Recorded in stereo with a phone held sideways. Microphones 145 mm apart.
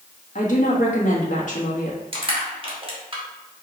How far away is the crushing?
About 1.3 m.